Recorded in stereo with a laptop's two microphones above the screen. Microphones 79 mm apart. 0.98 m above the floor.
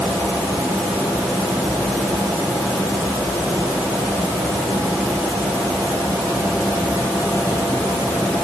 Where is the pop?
No pop in this recording.